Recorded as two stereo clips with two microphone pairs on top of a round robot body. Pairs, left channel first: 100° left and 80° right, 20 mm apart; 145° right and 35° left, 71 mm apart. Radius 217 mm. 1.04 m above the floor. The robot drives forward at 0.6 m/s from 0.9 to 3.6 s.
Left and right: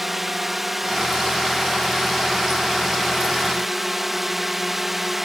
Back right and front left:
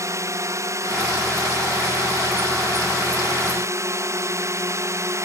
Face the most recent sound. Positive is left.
turn(degrees=-5)